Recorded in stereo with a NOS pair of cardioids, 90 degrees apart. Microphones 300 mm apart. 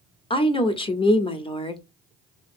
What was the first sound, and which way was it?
A woman speaking, 20° left.